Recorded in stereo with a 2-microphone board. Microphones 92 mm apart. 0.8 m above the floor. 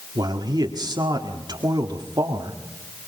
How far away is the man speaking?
About 1.7 m.